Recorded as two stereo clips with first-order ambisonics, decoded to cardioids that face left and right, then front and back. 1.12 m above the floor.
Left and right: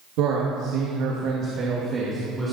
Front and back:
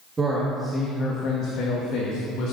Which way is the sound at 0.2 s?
105° right.